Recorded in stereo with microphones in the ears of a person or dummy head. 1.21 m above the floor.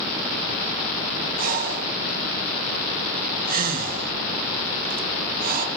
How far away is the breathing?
About 1.5 m.